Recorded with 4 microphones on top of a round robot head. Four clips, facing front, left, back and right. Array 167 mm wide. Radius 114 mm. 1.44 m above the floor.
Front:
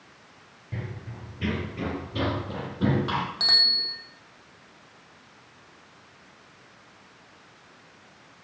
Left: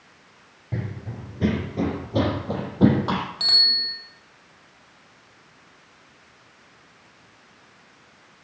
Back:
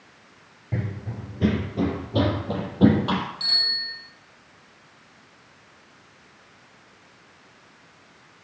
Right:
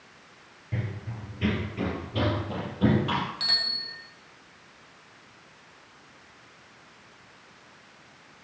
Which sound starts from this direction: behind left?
Running footsteps, at 0.7 s.